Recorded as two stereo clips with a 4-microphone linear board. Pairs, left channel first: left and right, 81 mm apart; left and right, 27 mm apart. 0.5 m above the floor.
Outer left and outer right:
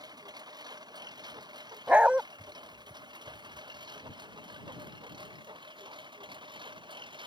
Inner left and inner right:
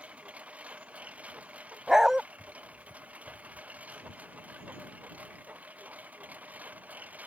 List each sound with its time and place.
0.0 s a lawn mower: 50° right (ahead or behind); by 7.3 s 65° right (ahead or behind)
1.9 s a dog barking: 15° right (ahead or behind)